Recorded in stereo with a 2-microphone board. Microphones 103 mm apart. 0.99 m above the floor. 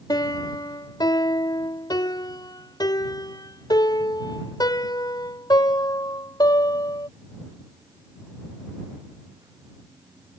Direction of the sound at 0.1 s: 40° left (ahead or behind).